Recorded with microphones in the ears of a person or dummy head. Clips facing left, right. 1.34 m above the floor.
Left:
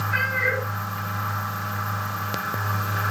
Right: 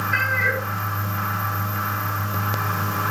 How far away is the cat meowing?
About 7.5 m.